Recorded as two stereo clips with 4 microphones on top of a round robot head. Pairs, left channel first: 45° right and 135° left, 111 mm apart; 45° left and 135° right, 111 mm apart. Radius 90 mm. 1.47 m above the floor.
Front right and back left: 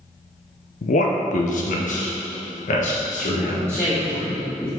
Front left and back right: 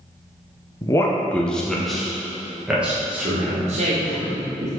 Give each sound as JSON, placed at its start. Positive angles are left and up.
{"t": 0.8, "sound": "a man speaking", "azimuth_deg": -20, "distance_m": 0.6}
{"t": 3.7, "sound": "a woman speaking", "azimuth_deg": -120, "distance_m": 1.2}